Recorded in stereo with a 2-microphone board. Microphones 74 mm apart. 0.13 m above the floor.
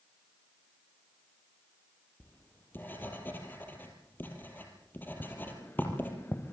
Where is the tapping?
30° left (ahead or behind), 2.5 m.